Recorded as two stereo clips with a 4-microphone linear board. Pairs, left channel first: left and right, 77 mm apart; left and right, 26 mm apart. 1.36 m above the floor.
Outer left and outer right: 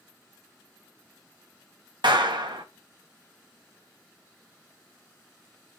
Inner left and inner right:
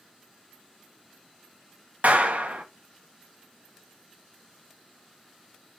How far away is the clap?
About 1.8 m.